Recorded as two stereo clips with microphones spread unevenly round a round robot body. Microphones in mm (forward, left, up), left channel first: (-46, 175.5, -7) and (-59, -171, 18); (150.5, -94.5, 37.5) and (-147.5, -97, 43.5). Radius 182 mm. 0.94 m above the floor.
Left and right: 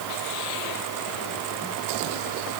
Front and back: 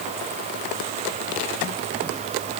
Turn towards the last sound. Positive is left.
No sound to turn to.